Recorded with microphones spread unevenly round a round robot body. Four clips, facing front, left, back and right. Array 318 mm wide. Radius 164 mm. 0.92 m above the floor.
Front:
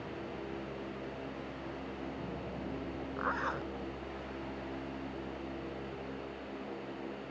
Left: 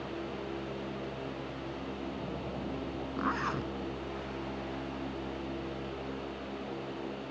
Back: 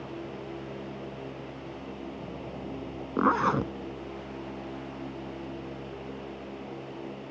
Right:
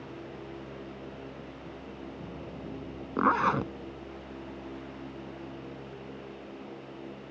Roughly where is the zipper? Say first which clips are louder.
Right 9 dB, back 12 dB; behind right.